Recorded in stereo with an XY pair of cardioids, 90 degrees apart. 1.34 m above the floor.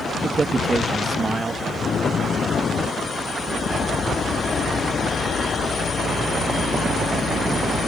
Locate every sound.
0.2 s a man speaking: 30° right